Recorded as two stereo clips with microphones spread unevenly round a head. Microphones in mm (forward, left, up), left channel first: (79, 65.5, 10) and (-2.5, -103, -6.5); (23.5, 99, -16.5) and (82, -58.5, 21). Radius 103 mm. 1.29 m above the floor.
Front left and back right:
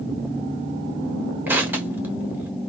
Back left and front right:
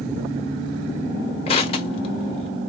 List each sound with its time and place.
1.5 s crushing: 165° left, 1.1 m